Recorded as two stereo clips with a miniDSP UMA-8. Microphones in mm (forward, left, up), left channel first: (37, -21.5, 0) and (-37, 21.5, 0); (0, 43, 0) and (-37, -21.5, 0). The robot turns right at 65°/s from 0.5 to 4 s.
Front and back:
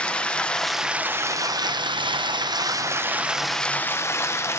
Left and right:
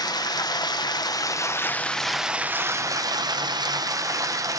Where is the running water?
45° left, 0.7 m; by 4.6 s 85° right, 0.7 m.